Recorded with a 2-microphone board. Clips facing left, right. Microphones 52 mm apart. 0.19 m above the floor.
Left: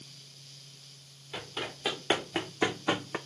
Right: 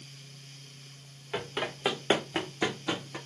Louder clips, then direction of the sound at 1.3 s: Right 5 dB; 35° right (ahead or behind).